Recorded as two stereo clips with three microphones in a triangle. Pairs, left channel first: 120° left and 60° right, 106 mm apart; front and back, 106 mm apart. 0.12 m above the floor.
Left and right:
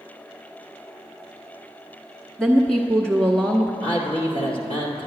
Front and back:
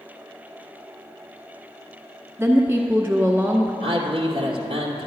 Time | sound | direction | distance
2.4 | a woman speaking | 170° right | 1.1 m
3.8 | a man speaking | 145° left | 2 m